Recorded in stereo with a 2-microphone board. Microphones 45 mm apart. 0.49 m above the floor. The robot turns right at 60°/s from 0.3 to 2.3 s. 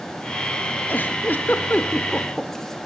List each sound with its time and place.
0.9 s a giggle: 45° left (ahead or behind), 1.5 m; by 2.8 s 10° left (ahead or behind), 1.5 m